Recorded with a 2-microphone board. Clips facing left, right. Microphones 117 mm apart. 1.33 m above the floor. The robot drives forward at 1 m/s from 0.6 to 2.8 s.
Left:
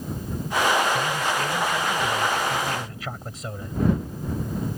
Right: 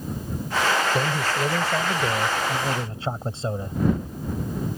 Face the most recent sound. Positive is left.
turn(degrees=-30)  # may be behind; listen again after turning